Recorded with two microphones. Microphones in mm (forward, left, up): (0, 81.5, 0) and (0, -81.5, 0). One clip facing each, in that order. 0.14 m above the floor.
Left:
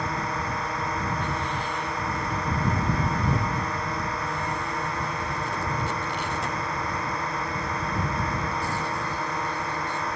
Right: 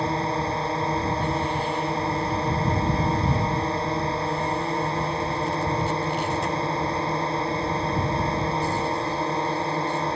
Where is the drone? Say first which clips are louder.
Right 5 dB; 30° right (ahead or behind).